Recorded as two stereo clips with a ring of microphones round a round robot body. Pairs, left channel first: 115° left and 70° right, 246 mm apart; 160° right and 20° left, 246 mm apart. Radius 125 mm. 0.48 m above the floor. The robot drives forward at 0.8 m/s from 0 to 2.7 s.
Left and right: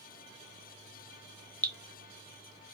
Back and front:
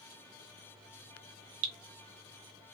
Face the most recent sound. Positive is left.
turn(degrees=70)